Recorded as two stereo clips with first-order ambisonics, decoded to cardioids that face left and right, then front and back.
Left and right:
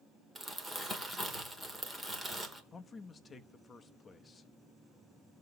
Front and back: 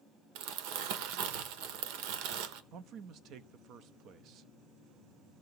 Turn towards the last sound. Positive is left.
turn(degrees=160)